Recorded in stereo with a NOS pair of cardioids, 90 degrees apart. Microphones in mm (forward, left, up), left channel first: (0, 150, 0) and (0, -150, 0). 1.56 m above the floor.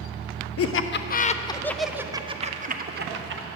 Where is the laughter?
50° left, 0.9 m; by 3.5 s 40° right, 1.4 m.